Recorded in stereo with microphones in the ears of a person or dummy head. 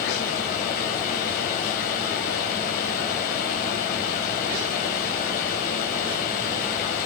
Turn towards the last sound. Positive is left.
turn(degrees=50)  # may be behind; listen again after turning